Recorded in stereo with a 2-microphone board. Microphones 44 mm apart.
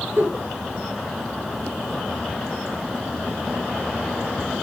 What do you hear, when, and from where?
0.2 s a giggle: 65° right (ahead or behind), 3 m